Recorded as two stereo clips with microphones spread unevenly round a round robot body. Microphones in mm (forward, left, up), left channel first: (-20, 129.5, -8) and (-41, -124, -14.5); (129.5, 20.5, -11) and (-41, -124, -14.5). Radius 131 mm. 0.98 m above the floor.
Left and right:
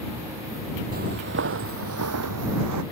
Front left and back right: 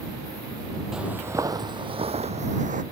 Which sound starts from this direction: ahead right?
Footsteps, at 0.9 s.